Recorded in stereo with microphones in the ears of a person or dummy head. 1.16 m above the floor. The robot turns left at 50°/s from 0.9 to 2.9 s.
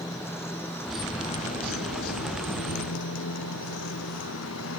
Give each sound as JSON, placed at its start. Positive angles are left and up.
{"t": 0.0, "sound": "a motorcycle", "side_deg": 15}